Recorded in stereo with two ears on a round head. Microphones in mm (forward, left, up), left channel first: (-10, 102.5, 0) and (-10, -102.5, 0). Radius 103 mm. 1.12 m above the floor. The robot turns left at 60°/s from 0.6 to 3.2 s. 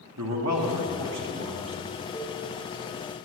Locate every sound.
0.2 s a man speaking: 85° right, 1.3 m; by 1.8 s 160° right, 1.3 m
2.1 s a cowbell: centre (ahead or behind), 1.5 m; by 2.4 s 15° right (ahead or behind), 1.5 m